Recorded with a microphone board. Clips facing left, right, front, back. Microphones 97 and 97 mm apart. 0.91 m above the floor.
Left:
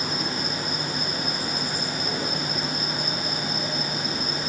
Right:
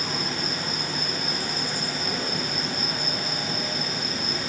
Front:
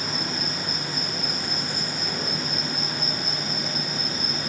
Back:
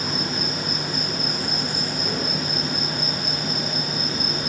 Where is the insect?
160° left, 10 m.